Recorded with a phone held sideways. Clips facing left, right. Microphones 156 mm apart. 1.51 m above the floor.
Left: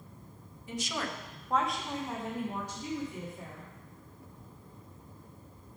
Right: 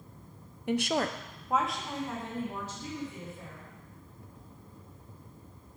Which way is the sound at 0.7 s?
70° right (ahead or behind).